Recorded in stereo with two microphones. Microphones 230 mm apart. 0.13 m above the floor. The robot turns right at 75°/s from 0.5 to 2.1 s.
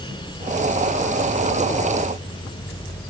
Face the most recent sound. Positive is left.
No sound to turn to.